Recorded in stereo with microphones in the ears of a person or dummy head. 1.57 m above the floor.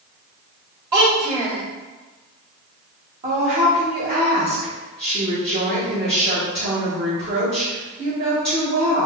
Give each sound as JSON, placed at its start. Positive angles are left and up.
{"t": 0.9, "sound": "a child speaking", "side_deg": -15, "distance_m": 1.6}
{"t": 3.2, "sound": "a woman speaking", "side_deg": -30, "distance_m": 1.4}